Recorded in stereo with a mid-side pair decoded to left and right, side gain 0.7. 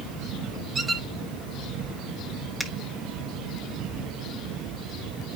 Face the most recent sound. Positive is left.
turn(degrees=0)